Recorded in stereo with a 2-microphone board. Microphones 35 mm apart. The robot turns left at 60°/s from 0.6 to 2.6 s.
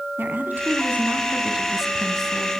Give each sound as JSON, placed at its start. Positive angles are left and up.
{"t": 0.2, "sound": "a woman speaking", "azimuth_deg": -95, "distance_m": 3.0}